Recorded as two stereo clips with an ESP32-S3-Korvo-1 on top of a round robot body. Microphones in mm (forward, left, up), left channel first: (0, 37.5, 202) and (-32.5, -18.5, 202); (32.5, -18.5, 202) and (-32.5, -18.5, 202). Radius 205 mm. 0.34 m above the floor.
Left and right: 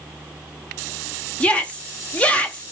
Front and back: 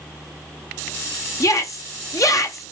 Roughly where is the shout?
Ahead.